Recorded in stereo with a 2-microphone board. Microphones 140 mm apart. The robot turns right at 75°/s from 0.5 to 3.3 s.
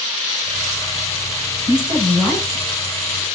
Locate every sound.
1.7 s a woman speaking: 45° right, 7 m; by 2.6 s 30° left, 7 m